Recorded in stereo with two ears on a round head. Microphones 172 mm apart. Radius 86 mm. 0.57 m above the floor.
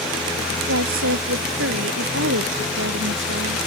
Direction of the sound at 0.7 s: 75° right (ahead or behind).